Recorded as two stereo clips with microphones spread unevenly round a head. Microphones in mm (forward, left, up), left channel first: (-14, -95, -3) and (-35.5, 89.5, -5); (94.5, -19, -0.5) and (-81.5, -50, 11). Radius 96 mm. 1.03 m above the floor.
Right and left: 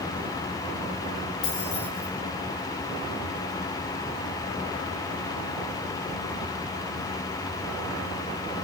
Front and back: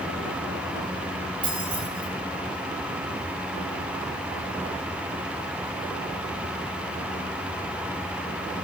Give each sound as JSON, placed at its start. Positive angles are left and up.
{"t": 1.4, "sound": "keys jangling", "azimuth_deg": -110, "distance_m": 6.0}